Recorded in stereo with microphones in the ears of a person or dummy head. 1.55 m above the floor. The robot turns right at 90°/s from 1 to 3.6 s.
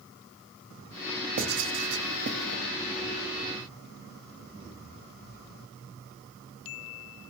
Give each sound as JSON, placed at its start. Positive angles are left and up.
{"t": 1.4, "sound": "writing", "side_deg": -40, "distance_m": 0.8}